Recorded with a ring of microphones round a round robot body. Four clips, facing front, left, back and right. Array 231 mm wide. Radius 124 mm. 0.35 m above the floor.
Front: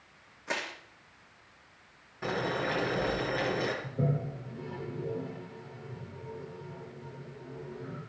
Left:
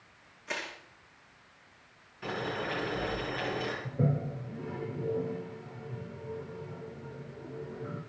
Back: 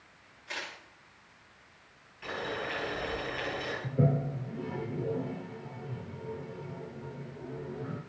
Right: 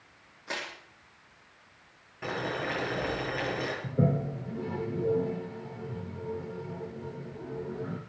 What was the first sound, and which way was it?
Crushing, 20° right.